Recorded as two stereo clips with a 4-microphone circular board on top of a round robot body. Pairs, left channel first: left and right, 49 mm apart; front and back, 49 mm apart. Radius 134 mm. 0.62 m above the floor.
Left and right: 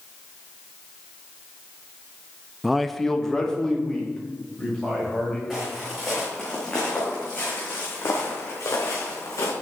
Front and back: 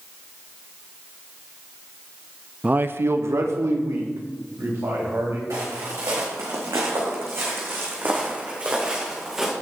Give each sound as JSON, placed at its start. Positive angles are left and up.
{"t": 2.6, "sound": "a man speaking", "azimuth_deg": -165, "distance_m": 0.6}
{"t": 5.5, "sound": "footsteps", "azimuth_deg": 180, "distance_m": 3.5}